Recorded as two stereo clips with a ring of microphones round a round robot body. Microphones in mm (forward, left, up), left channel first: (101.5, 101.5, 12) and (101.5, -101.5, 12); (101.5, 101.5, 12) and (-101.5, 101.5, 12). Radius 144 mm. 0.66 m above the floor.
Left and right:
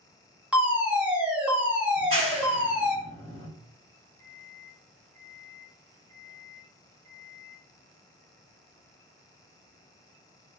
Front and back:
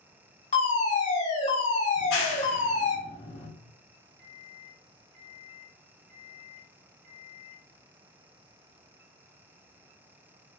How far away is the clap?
About 2.5 m.